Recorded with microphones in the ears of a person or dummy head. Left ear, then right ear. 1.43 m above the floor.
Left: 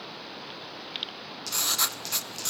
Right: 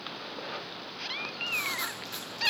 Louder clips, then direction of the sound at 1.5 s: Left 5 dB; 35° left (ahead or behind).